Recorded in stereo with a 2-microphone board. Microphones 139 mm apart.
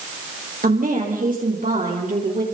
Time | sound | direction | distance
0.6 | a woman speaking | 80° right | 9.5 m